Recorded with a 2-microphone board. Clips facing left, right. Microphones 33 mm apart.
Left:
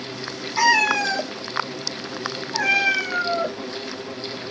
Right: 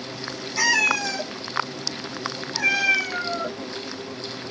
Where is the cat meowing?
30° left (ahead or behind), 0.9 m; by 3.6 s 35° left (ahead or behind), 1.3 m.